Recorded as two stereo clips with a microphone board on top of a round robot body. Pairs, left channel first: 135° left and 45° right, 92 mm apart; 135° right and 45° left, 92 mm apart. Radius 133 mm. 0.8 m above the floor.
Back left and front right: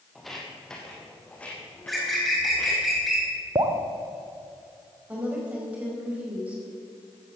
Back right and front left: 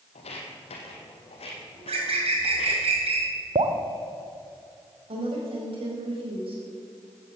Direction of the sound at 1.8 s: 45° left.